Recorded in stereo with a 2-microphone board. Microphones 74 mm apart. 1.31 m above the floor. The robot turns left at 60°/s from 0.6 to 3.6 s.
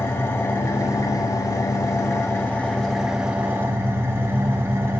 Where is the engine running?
140° left, 1.9 m; by 5.0 s 40° right, 1.9 m.